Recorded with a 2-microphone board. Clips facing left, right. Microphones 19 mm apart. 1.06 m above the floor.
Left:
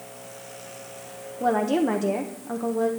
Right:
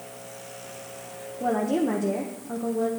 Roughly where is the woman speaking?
Left.